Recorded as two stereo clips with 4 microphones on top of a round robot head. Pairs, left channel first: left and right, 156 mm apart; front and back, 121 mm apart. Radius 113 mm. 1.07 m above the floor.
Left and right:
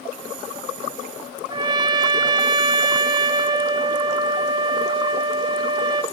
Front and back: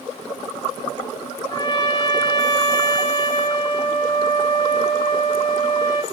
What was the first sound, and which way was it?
A trumpet, 50° right.